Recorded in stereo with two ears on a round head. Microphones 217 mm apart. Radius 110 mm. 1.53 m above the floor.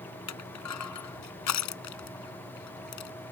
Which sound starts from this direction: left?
Crushing, at 0.3 s.